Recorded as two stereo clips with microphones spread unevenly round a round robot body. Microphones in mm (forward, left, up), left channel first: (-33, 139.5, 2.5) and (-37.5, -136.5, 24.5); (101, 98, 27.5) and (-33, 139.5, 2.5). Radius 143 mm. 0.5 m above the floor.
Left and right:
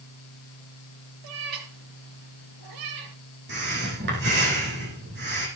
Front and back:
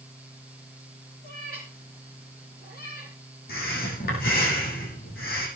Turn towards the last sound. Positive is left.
turn(degrees=-35)